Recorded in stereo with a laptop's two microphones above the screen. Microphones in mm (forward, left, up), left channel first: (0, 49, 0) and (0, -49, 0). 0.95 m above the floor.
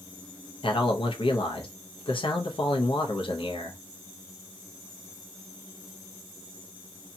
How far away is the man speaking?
About 0.7 m.